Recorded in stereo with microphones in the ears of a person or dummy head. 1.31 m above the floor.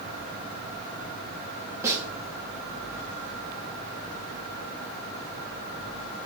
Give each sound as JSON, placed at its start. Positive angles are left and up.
{"t": 1.8, "sound": "a snare drum", "side_deg": -15, "distance_m": 3.0}